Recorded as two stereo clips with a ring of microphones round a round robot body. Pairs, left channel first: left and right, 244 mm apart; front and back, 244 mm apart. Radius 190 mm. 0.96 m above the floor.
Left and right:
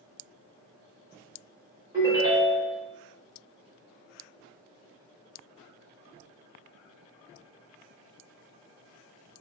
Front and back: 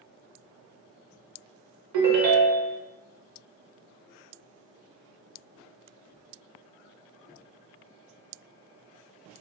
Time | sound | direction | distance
1.9 | a ringtone | 170° right | 0.6 m